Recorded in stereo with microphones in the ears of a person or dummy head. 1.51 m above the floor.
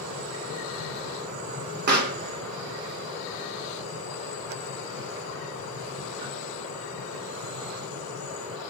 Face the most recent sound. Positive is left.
turn(degrees=-45)  # may be behind; listen again after turning